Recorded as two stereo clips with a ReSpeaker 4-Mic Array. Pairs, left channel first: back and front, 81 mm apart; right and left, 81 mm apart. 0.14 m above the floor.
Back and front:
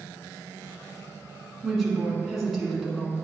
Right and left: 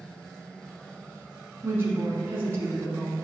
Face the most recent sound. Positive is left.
turn(degrees=95)